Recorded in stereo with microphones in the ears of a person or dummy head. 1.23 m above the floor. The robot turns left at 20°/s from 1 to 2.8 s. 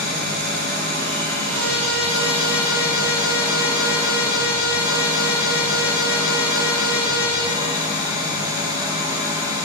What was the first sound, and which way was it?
An engine running, 130° right.